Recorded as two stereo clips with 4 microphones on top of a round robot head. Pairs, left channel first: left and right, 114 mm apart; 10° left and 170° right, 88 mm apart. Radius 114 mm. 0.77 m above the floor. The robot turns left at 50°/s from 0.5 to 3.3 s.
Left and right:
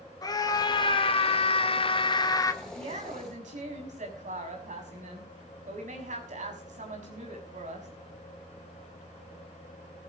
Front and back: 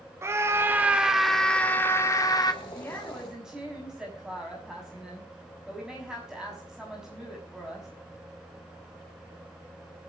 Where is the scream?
140° left, 1.3 m; by 2.5 s 35° left, 1.3 m.